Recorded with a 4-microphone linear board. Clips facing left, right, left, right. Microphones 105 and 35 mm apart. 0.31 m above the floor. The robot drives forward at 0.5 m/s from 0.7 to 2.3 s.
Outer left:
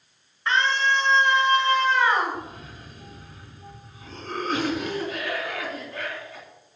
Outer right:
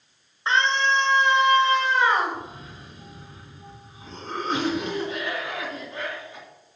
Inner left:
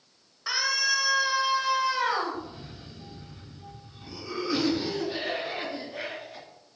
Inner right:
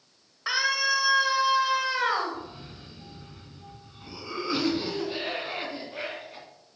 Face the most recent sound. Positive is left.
turn(degrees=-25)  # may be behind; listen again after turning